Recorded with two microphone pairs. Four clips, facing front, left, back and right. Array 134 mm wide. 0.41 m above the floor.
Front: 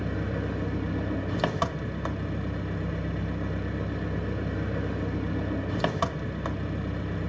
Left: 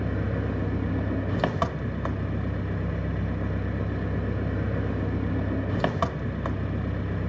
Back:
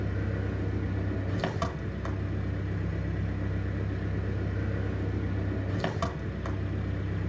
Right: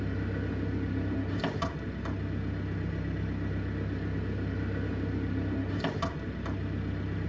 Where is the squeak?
No squeak in this recording.